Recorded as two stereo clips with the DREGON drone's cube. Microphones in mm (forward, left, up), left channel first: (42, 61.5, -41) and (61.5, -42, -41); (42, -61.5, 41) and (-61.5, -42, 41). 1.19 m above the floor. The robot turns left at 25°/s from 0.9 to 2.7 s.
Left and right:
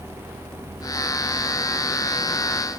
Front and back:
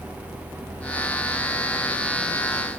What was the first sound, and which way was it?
Only background noise.